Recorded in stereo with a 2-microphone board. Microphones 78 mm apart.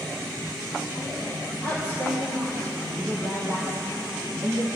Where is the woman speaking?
55° right (ahead or behind), 5 m; by 4.7 s 40° right (ahead or behind), 5.5 m.